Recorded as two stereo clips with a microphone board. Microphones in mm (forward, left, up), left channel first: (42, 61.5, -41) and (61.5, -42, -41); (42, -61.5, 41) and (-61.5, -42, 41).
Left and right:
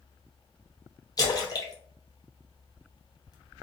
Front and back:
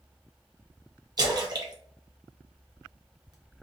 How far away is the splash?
About 0.5 m.